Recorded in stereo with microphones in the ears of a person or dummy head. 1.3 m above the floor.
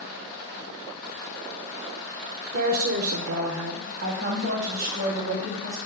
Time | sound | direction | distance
2.5 | a woman speaking | 40° right (ahead or behind) | 0.9 m